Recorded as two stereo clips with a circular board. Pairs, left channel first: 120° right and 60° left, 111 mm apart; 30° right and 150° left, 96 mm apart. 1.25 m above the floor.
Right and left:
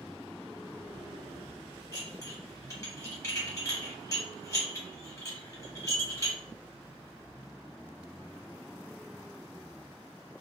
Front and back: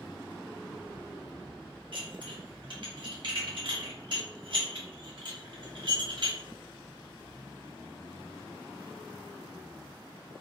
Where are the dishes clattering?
Straight behind, 0.9 m.